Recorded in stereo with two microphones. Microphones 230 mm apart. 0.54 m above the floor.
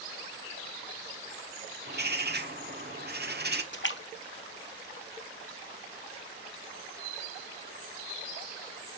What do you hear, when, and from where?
1.9 s a bird: 45° right (ahead or behind), 1.2 m
3.7 s a splash: 55° left (ahead or behind), 1.2 m